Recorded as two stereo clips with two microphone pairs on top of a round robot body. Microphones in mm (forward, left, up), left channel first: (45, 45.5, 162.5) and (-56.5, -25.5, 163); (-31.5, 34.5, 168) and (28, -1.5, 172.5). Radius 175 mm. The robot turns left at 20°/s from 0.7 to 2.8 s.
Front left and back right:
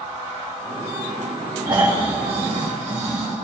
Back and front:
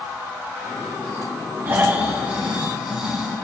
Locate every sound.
1.6 s snoring: 85° right, 3.5 m; by 3.3 s 110° right, 3.5 m